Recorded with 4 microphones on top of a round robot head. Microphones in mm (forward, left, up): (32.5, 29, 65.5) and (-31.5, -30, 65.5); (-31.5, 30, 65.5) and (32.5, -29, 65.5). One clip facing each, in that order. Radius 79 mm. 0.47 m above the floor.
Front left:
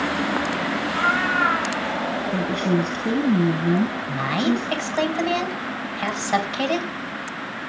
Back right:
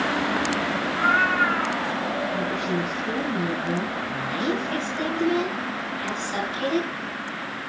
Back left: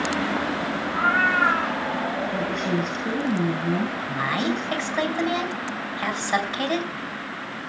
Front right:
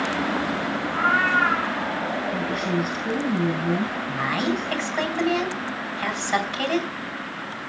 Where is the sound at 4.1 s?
60° left, 4 m.